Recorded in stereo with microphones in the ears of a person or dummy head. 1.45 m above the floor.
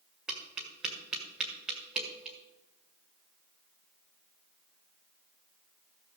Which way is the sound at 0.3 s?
Centre (ahead or behind).